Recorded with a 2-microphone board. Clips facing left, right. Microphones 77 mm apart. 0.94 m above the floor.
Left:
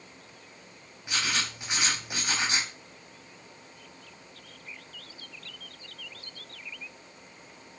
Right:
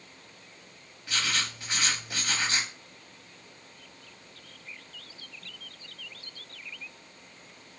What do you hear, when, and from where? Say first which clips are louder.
1.1 s writing: even; 20° left (ahead or behind), 0.6 m